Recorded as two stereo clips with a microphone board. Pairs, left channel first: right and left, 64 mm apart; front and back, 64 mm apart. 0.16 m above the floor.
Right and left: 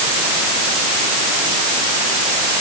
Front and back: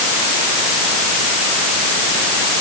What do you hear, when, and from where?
Only background noise.